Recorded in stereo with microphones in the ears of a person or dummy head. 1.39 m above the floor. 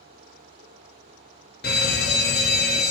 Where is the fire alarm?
50° left (ahead or behind), 1.5 m.